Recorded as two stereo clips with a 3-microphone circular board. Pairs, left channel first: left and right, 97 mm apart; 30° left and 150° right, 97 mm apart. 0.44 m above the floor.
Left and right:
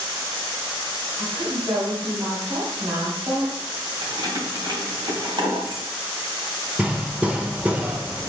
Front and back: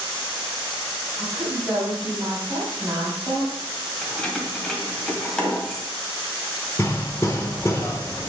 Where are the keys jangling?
55° right, 1.5 m.